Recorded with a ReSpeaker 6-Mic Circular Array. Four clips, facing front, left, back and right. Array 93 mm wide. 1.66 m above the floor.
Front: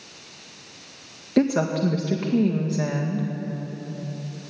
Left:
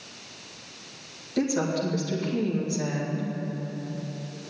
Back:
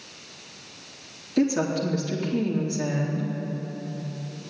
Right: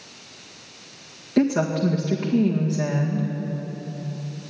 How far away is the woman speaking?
About 2.0 m.